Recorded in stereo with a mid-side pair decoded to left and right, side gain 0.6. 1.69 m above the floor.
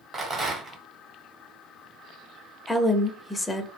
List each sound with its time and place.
0.1 s a rattle: 30° right, 1.3 m
2.7 s a woman speaking: 5° left, 0.6 m